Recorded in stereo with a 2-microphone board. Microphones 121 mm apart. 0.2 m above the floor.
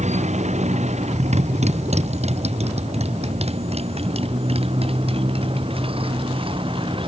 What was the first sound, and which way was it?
A motorcycle, 80° right.